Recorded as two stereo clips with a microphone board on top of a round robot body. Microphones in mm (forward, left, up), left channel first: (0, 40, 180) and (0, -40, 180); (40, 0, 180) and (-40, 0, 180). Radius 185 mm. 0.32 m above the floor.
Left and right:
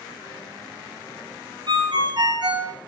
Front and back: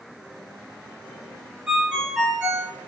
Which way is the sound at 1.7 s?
100° right.